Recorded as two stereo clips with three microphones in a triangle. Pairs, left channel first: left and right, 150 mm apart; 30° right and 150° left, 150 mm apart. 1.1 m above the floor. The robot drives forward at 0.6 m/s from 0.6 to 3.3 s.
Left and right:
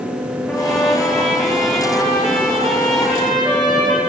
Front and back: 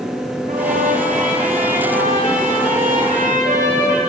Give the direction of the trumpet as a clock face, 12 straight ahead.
6 o'clock.